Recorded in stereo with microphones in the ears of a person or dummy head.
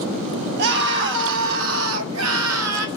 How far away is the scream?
About 2.5 m.